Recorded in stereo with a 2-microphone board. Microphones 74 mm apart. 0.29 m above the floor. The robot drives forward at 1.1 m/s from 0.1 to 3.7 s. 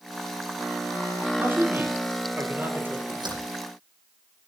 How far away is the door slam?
About 10 m.